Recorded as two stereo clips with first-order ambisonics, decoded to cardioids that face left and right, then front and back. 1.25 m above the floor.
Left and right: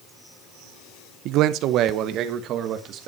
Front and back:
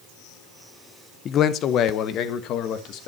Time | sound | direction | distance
1.2 | a man speaking | 55° right | 0.7 m